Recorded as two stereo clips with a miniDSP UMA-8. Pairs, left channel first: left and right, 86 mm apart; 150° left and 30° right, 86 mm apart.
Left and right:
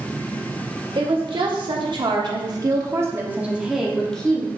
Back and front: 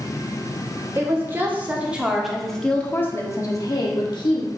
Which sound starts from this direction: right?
A woman speaking, at 0.9 s.